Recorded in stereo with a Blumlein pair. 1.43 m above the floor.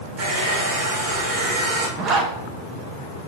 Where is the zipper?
30° right, 0.7 m.